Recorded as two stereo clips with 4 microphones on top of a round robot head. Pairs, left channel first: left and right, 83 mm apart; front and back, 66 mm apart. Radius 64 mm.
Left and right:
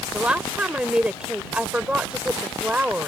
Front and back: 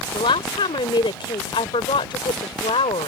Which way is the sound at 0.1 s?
10° right.